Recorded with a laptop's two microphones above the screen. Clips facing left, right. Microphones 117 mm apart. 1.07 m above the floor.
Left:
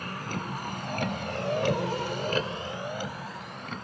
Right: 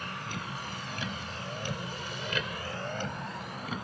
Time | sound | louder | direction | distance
0.0 | a vehicle | left 4 dB | 45° left (ahead or behind) | ?